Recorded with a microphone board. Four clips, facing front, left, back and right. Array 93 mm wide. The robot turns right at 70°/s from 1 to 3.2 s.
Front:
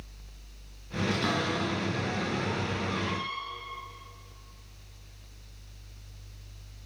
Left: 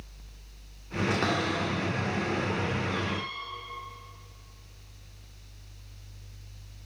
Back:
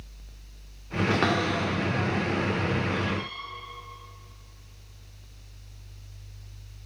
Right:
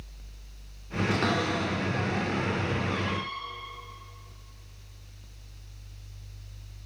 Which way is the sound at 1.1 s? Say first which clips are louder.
Right 1 dB, back 5 dB; 165° left.